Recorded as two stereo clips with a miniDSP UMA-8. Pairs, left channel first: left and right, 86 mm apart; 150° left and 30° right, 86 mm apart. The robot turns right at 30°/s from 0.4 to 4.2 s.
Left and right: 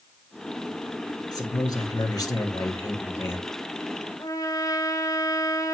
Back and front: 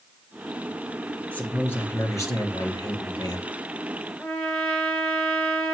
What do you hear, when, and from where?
1.3 s a man speaking: 85° left, 2.5 m; by 3.5 s 150° left, 2.5 m
4.2 s a trumpet: 85° left, 2.5 m